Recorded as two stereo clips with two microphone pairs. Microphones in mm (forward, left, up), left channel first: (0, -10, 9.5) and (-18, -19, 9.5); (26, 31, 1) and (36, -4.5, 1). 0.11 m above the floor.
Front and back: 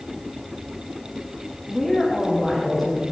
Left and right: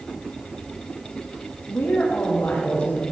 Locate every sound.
1.7 s a woman speaking: 110° left, 6 m; by 3.0 s 100° left, 7 m